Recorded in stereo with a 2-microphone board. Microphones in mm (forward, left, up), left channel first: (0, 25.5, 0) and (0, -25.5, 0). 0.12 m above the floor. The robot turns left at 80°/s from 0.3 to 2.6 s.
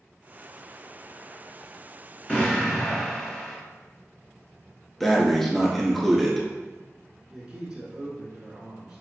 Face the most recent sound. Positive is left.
turn(degrees=-20)  # may be behind; listen again after turning